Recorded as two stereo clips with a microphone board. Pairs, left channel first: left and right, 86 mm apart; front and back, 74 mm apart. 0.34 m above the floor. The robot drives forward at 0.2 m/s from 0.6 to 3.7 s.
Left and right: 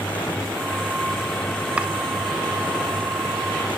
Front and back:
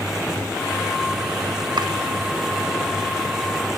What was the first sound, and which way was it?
Chopping, 165° right.